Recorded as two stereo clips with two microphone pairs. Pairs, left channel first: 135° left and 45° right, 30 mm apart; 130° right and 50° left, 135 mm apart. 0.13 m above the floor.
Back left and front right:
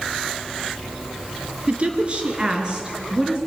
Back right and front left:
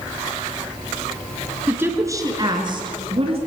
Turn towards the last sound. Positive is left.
turn(degrees=15)